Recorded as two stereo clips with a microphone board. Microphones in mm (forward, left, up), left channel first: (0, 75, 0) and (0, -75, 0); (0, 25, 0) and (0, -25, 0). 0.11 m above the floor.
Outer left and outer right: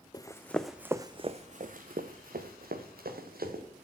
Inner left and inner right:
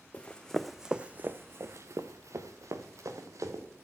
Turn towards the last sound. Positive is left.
turn(degrees=-90)